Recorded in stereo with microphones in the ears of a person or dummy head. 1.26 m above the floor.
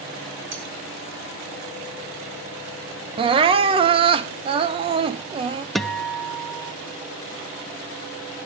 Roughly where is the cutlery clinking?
Right.